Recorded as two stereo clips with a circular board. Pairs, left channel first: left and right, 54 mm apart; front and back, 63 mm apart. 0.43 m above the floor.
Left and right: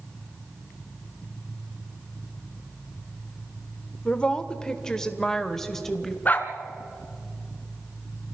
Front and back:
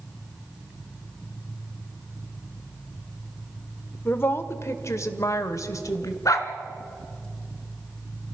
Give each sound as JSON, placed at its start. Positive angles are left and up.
{"t": 4.0, "sound": "a woman speaking", "azimuth_deg": 30, "distance_m": 1.2}
{"t": 6.2, "sound": "a dog barking", "azimuth_deg": 30, "distance_m": 1.5}